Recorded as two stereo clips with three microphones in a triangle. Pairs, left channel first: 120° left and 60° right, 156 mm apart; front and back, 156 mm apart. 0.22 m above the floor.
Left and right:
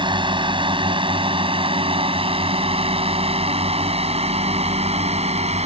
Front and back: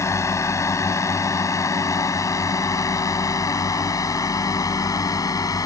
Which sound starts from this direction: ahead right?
A drone, at 0.0 s.